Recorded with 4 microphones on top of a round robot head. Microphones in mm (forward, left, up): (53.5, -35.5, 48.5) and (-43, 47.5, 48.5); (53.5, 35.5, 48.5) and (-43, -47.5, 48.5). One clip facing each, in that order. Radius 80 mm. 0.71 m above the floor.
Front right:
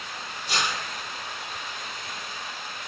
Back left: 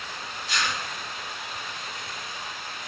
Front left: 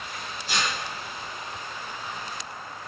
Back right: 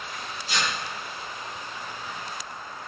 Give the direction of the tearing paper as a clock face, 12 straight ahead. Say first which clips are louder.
Front right 1 dB, even; 12 o'clock.